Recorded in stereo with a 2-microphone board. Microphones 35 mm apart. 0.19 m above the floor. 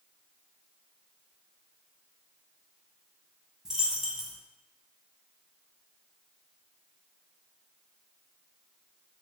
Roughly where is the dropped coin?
Centre.